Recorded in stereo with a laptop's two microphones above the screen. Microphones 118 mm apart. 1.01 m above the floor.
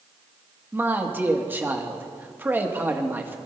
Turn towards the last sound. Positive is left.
turn(degrees=-15)  # may be behind; listen again after turning